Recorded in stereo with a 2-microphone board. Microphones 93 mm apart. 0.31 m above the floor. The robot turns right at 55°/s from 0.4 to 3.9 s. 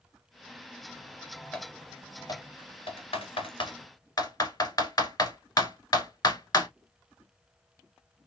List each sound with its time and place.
1.5 s typing on a keyboard: 10° left (ahead or behind), 1.6 m; by 6.7 s 40° left (ahead or behind), 1.6 m